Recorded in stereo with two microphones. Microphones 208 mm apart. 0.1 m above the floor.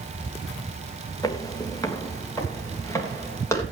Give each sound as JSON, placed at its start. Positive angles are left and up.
{"t": 1.2, "sound": "footsteps", "side_deg": 15, "distance_m": 1.8}